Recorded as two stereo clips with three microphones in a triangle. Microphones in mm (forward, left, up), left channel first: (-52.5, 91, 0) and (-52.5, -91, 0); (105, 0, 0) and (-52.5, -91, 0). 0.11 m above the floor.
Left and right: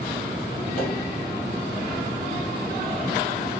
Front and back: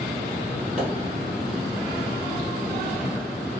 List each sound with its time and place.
0.8 s a pop: 75° right, 1.7 m